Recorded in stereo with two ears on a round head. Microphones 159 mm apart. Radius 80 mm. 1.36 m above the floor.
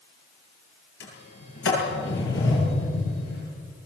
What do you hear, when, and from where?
1.0 s a sliding door: 85° left, 10 m